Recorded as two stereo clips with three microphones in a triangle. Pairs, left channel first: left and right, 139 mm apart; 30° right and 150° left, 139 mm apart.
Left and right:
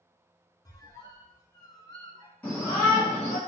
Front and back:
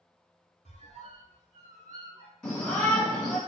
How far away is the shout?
About 1.1 m.